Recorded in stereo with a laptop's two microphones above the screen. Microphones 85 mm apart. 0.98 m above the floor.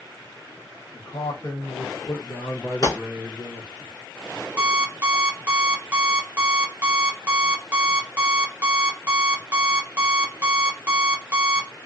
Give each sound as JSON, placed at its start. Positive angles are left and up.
{"t": 0.9, "sound": "a man speaking", "side_deg": 65, "distance_m": 1.3}
{"t": 2.8, "sound": "a gunshot", "side_deg": 50, "distance_m": 1.0}
{"t": 4.6, "sound": "an alarm clock", "side_deg": -25, "distance_m": 0.6}